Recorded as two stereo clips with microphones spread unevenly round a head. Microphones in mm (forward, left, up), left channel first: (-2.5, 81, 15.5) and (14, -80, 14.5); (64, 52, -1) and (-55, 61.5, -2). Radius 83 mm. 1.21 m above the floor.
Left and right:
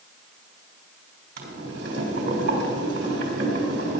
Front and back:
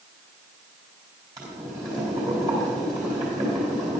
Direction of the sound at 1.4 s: 115° right.